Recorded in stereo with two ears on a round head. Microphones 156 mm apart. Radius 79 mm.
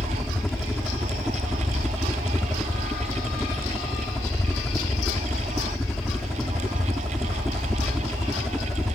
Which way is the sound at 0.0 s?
Centre (ahead or behind).